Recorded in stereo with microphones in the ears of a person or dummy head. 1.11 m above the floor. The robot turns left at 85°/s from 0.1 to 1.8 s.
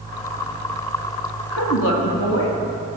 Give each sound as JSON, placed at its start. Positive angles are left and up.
{"t": 1.5, "sound": "a woman speaking", "side_deg": 75, "distance_m": 1.7}